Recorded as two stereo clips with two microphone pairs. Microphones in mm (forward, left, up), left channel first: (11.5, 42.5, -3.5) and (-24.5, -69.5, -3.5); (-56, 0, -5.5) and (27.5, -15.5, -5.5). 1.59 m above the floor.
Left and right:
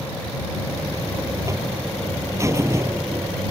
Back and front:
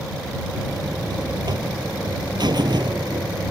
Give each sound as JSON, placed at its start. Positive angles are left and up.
{"t": 0.5, "sound": "a buzzer", "azimuth_deg": -45}